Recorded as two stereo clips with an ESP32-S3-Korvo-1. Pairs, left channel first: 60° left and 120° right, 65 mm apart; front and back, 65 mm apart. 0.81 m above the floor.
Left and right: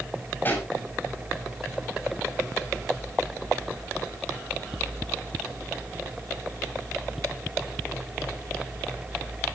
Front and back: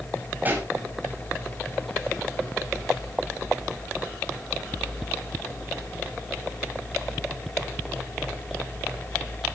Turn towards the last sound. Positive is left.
turn(degrees=120)